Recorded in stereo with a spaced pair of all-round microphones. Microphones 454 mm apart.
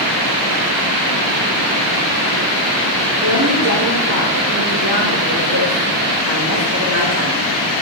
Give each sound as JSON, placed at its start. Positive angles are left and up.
{"t": 3.2, "sound": "a woman speaking", "side_deg": -25, "distance_m": 4.0}